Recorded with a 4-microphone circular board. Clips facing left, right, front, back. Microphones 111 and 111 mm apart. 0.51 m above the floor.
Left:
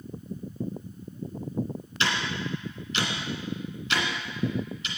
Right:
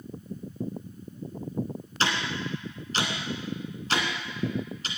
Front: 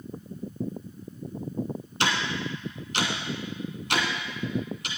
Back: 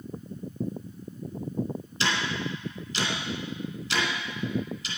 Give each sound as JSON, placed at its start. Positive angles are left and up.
{"t": 2.0, "sound": "ticking", "azimuth_deg": -35, "distance_m": 2.0}